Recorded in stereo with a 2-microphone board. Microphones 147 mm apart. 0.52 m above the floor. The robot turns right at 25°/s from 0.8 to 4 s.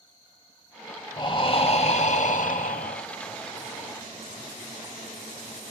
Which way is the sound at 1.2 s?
35° left.